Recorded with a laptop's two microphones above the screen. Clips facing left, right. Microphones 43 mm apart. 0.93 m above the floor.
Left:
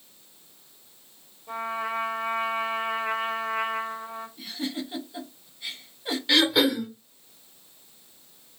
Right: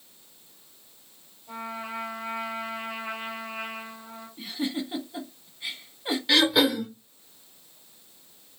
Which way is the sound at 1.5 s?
55° left (ahead or behind).